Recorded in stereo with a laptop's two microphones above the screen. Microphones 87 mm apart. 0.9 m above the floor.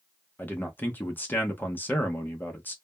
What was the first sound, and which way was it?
A man speaking, 20° left (ahead or behind).